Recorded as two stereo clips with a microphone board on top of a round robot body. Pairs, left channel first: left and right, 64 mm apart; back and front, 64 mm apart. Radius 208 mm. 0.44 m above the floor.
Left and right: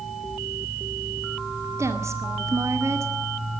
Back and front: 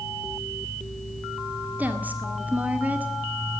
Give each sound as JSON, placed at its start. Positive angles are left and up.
{"t": 1.8, "sound": "a woman speaking", "azimuth_deg": -60, "distance_m": 2.0}